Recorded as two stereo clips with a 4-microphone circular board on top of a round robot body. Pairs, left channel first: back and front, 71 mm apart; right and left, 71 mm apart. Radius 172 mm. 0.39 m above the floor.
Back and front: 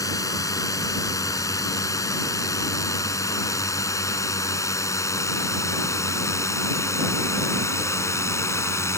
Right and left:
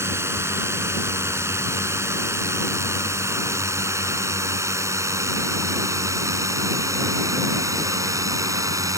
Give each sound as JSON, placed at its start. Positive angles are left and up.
{"t": 0.0, "sound": "a drone", "azimuth_deg": 145}